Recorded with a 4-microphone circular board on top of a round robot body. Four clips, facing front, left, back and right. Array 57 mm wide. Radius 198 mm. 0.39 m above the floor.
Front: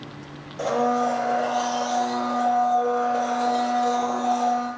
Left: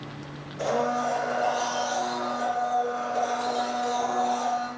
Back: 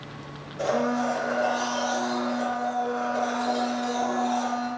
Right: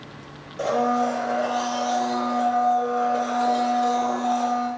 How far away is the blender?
About 1.3 m.